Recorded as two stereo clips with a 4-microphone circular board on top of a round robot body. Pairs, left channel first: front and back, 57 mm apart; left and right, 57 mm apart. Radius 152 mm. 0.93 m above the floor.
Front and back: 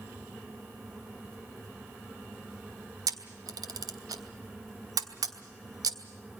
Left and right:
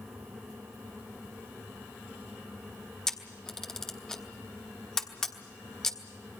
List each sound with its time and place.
3.1 s a camera shutter: 170° left, 1.1 m